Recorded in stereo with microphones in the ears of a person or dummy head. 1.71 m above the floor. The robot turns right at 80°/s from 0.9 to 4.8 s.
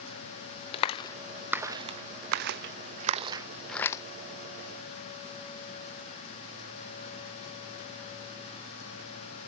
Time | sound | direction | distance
0.7 | a clap | 35° left (ahead or behind) | 0.5 m